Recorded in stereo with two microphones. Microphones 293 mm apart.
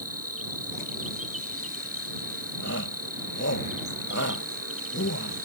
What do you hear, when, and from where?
0.0 s an insect: 50° right (ahead or behind)
2.6 s a shout: 55° left (ahead or behind)